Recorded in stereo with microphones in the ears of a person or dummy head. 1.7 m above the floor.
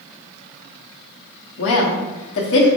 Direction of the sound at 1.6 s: 65° left (ahead or behind).